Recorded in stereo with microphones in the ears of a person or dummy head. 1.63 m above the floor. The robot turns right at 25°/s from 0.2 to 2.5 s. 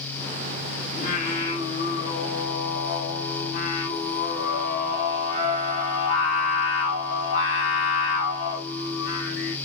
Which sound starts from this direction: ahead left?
Singing, at 0.9 s.